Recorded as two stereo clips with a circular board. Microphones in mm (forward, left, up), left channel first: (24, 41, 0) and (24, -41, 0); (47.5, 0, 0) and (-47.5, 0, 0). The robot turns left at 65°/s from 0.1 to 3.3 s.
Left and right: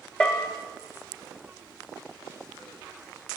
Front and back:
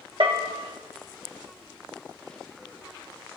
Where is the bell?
165° left, 1.5 m; by 0.5 s 145° left, 1.5 m.